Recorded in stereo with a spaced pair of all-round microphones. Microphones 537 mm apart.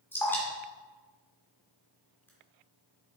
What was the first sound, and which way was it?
Dripping, 5° left (ahead or behind).